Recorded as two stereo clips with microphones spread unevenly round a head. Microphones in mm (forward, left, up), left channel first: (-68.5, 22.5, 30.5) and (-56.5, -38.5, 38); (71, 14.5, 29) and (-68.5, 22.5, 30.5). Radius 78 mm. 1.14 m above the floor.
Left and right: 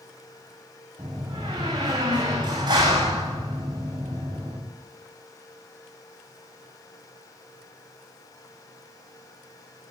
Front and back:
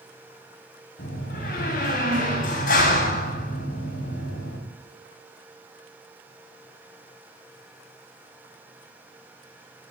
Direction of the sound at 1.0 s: 40° right.